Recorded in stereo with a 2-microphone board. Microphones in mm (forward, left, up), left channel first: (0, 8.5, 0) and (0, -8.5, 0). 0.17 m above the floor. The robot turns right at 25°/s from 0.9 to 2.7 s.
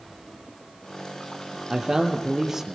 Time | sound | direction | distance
1.7 | a man speaking | 45° right (ahead or behind) | 3.5 m